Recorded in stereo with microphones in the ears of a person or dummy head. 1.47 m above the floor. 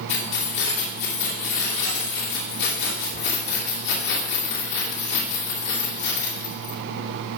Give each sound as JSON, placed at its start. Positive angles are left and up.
{"t": 0.1, "sound": "keys jangling", "side_deg": 60, "distance_m": 3.0}